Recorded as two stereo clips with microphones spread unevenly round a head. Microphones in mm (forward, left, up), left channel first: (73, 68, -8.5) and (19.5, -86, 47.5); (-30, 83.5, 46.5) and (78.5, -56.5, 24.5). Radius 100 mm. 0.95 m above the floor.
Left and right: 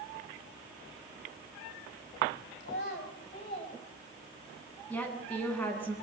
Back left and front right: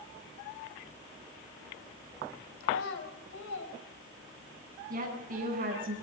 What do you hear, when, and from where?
2.6 s a child speaking: 115° left, 4 m; by 4.6 s 155° left, 5 m
4.9 s a woman speaking: 10° right, 9 m